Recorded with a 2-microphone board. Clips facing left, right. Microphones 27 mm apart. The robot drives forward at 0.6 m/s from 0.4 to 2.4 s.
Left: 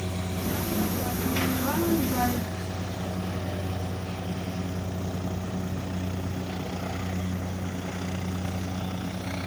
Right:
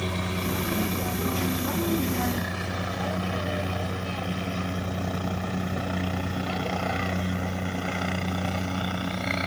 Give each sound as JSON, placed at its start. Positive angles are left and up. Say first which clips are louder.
{"t": 0.0, "sound": "a helicopter", "louder": "right 3 dB", "side_deg": -65}